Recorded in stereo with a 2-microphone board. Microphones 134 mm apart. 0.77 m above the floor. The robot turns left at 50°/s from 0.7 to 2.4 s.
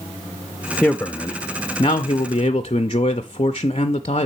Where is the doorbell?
No doorbell in this recording.